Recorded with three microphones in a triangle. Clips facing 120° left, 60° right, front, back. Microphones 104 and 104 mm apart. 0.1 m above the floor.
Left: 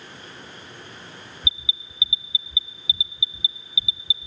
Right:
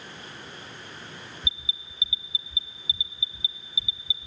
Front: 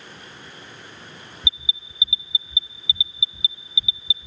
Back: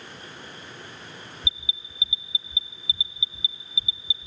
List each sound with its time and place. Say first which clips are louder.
1.4 s an alarm: left 4 dB, front 3 dB; 60° left, 1.0 m